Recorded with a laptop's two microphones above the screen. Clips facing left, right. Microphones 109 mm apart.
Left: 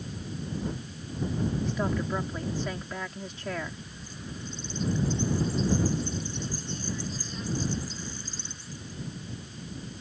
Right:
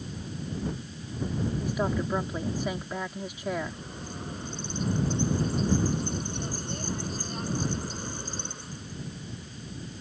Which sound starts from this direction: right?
A bird, at 3.5 s.